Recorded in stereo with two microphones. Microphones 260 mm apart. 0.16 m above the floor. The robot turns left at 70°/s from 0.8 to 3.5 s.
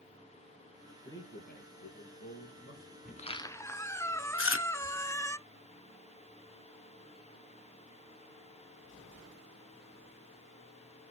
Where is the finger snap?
I don't hear a finger snap.